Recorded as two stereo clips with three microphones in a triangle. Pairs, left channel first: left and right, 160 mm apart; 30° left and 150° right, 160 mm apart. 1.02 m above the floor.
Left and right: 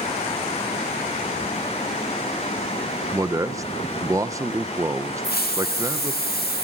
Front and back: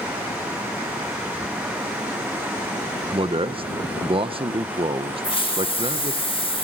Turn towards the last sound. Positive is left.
turn(degrees=85)